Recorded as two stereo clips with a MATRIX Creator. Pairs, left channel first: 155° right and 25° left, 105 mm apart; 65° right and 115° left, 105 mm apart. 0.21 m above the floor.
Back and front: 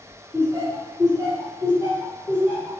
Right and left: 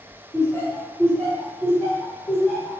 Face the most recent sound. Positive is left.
turn(degrees=45)